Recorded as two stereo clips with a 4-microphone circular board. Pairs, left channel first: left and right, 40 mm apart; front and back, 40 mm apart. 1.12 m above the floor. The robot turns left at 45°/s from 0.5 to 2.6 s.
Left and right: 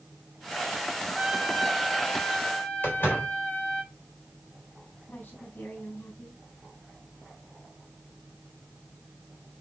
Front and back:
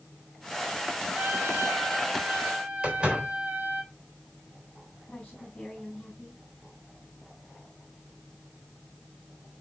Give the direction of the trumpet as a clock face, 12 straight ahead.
5 o'clock.